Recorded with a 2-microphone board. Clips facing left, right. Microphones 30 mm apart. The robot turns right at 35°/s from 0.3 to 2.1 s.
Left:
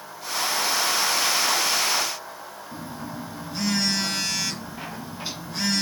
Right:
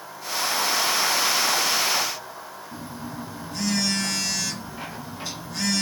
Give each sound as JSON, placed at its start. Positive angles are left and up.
{"t": 2.7, "sound": "a phone buzzing", "side_deg": 25, "distance_m": 1.2}